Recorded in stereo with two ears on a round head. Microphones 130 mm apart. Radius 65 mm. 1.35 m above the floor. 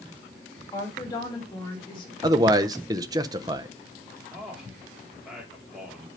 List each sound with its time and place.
0.7 s a woman speaking: 25° left (ahead or behind), 5.5 m; by 2.1 s 35° left (ahead or behind), 3.5 m
2.2 s a man speaking: 25° right (ahead or behind), 0.8 m
4.3 s a man speaking: centre (ahead or behind), 4 m